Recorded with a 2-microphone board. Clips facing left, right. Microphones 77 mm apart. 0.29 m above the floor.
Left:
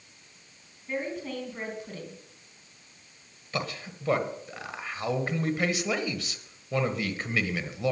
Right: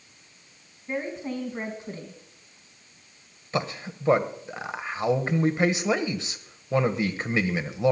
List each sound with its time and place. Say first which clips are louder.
0.9 s a woman speaking: right 2 dB; 25° right (ahead or behind), 3 m
3.5 s a man speaking: right 4 dB; 25° right (ahead or behind), 1.1 m